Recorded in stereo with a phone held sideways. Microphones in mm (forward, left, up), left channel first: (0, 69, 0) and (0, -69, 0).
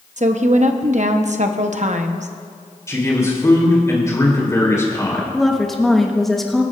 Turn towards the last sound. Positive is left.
turn(degrees=0)  # may be behind; listen again after turning